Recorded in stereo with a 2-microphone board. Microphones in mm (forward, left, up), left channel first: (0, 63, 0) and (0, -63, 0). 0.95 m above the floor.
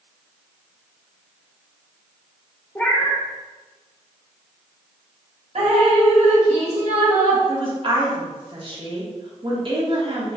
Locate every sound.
2.8 s a cat meowing: 15° left (ahead or behind), 0.7 m
5.5 s dripping: 60° right (ahead or behind), 1.6 m
7.5 s a woman speaking: 45° right (ahead or behind), 1.3 m